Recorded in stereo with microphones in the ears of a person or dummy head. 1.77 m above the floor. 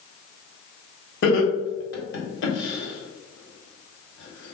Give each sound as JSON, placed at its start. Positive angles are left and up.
{"t": 1.2, "sound": "laughter", "side_deg": 70, "distance_m": 1.2}